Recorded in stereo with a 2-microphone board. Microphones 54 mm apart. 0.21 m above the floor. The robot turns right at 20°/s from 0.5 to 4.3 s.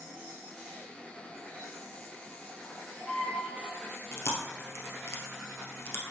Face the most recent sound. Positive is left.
turn(degrees=55)  # may be behind; listen again after turning